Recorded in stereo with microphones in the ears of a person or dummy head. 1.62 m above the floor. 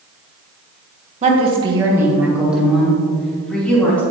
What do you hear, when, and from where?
1.2 s a woman speaking: 40° right (ahead or behind), 1.5 m; by 4.0 s 5° left (ahead or behind), 4 m